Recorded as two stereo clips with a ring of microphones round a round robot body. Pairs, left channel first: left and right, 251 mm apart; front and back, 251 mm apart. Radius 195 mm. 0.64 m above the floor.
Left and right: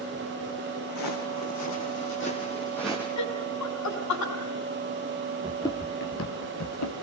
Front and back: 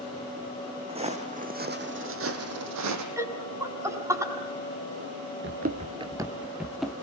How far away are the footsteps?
About 3.5 m.